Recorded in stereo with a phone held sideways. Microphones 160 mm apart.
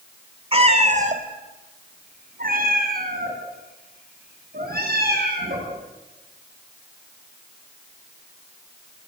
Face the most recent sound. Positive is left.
turn(degrees=-75)  # may be behind; listen again after turning